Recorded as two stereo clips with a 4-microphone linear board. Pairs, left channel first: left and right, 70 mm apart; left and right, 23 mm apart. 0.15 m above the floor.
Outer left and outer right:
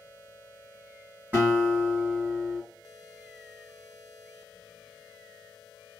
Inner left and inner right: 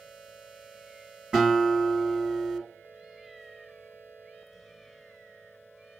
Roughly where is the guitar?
Right.